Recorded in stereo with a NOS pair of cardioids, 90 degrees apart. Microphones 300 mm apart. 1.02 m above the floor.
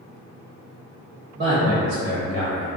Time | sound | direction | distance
1.4 | a man speaking | 35° right | 1.2 m